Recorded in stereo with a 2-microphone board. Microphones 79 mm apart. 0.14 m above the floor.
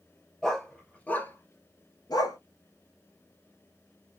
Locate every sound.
0.4 s a dog barking: 5° left (ahead or behind), 0.9 m; by 2.4 s 65° left (ahead or behind), 0.6 m